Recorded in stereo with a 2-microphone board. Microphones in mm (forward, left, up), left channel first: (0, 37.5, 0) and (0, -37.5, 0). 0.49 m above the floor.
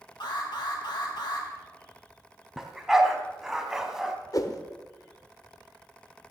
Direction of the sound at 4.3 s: 50° left (ahead or behind).